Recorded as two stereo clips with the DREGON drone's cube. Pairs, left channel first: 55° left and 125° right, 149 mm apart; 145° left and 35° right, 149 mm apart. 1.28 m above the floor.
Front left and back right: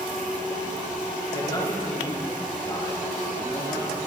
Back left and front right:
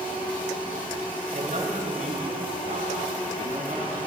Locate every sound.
1.3 s a man speaking: 5° right, 7.5 m